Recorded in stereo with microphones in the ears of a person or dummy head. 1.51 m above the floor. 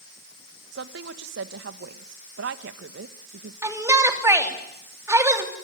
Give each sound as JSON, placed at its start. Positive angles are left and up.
{"t": 0.7, "sound": "a woman speaking", "side_deg": -75, "distance_m": 1.4}
{"t": 3.6, "sound": "a shout", "side_deg": -15, "distance_m": 3.0}